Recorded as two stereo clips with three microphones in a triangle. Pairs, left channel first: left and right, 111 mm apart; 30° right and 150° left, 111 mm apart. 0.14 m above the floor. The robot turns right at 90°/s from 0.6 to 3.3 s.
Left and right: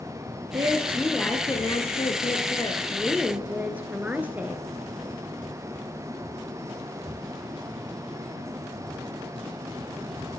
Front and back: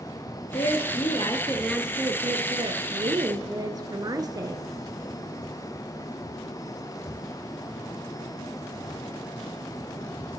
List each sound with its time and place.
0.5 s a woman speaking: 45° right, 1.8 m; by 4.7 s 165° right, 1.8 m